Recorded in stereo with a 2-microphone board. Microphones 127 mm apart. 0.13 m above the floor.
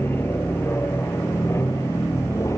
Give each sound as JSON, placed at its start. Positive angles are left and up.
{"t": 0.0, "sound": "an aircraft", "side_deg": 15}